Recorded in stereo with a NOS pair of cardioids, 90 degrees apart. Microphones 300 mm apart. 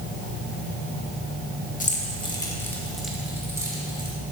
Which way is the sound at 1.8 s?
25° left.